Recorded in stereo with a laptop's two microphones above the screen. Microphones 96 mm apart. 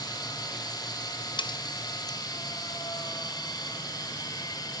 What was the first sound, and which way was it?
A machine running, 45° left (ahead or behind).